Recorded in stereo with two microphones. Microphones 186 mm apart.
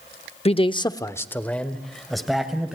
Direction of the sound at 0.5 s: 30° left (ahead or behind).